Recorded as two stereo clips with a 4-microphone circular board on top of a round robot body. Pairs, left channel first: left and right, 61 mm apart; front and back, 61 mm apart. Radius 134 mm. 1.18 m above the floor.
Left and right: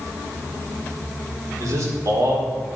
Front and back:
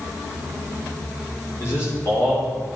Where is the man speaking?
55° right, 4 m.